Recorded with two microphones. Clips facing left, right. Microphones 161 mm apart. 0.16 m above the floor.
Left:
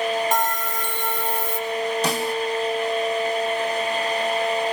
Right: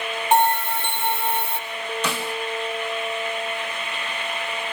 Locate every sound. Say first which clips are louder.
0.3 s a bell: right 5 dB; 25° right (ahead or behind), 5.5 m
2.0 s a snare drum: left 4 dB; 40° left (ahead or behind), 1.5 m